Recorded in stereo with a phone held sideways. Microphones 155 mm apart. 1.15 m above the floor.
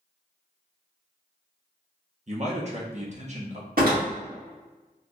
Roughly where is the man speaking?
Right.